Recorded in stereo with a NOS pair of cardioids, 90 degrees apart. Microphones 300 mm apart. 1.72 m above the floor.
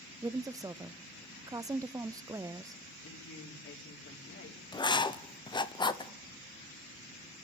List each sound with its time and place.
0.2 s a woman speaking: 10° right, 0.5 m
3.0 s a woman speaking: 45° left, 4 m
4.7 s writing: 15° left, 0.9 m